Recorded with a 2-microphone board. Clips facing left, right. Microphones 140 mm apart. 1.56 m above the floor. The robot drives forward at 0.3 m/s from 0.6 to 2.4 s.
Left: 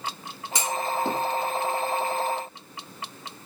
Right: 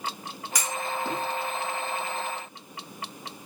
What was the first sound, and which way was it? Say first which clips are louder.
A clunk: left 4 dB; 30° left (ahead or behind).